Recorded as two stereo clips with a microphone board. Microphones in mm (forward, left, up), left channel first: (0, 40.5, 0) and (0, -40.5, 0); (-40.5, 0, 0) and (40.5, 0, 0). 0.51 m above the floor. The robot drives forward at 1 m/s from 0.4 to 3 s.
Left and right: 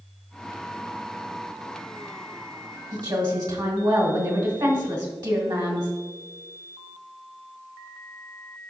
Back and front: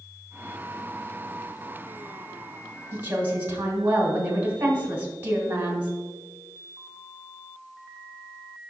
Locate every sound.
2.9 s a woman speaking: 60° right, 1.8 m; by 5.9 s 65° right, 1.8 m